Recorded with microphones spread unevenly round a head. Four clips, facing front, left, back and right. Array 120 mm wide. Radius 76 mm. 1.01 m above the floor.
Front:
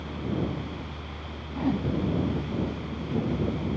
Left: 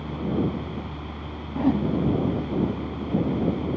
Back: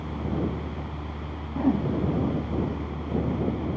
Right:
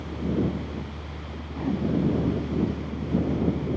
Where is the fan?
130° left.